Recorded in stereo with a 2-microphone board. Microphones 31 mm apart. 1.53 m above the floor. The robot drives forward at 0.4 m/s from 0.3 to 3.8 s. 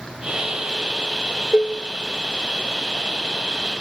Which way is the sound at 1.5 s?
35° left (ahead or behind).